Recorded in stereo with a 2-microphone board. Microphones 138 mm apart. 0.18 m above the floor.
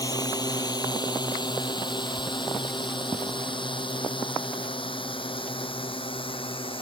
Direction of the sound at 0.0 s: 30° left (ahead or behind).